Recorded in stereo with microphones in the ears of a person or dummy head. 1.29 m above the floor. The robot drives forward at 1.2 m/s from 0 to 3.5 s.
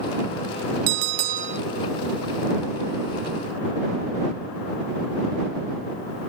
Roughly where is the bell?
Right.